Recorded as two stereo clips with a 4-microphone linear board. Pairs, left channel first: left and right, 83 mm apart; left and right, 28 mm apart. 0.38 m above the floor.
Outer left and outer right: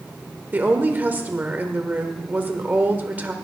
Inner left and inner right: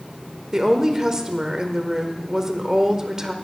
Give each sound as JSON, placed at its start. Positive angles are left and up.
{"t": 0.5, "sound": "a woman speaking", "side_deg": -20, "distance_m": 1.2}